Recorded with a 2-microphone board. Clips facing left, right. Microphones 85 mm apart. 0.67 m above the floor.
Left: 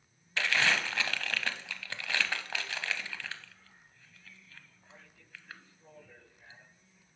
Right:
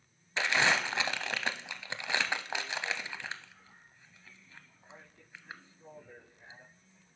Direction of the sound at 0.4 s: 20° right (ahead or behind).